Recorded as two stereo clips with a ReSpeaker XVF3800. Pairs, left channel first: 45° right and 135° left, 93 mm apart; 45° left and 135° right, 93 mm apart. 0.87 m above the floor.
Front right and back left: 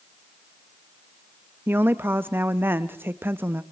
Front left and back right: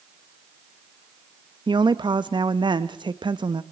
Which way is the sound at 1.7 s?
160° right.